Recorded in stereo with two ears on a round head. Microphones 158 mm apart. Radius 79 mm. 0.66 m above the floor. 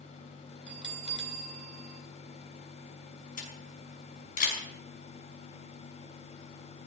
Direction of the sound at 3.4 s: 50° left (ahead or behind).